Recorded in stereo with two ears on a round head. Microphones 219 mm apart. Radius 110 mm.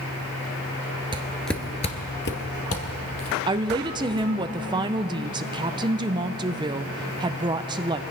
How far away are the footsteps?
About 1.3 m.